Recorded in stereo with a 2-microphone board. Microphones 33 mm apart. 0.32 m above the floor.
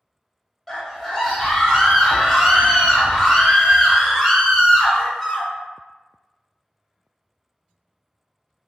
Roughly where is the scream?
Centre.